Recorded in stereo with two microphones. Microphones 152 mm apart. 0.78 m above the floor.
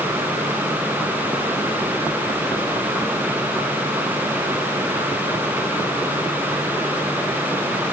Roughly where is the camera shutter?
No camera shutter in this recording.